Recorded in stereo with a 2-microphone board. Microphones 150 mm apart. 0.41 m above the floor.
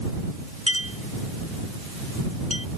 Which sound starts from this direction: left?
A clink, at 0.7 s.